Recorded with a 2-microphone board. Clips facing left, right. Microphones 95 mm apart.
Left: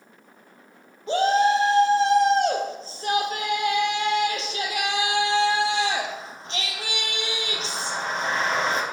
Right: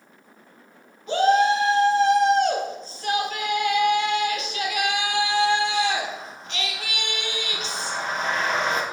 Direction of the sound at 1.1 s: 35° left (ahead or behind).